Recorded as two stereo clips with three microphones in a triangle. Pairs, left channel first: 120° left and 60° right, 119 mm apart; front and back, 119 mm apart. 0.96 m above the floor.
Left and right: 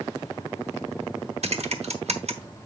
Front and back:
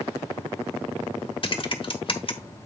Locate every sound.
1.4 s typing on a keyboard: 40° right, 1.3 m